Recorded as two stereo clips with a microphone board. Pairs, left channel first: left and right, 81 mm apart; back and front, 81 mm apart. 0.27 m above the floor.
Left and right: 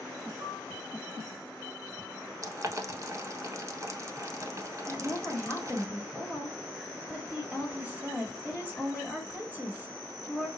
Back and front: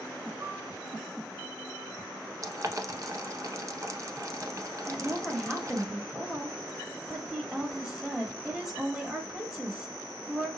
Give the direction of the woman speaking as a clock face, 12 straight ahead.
2 o'clock.